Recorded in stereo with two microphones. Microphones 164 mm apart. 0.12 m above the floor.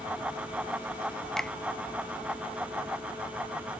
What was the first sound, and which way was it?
A finger snap, 5° left (ahead or behind).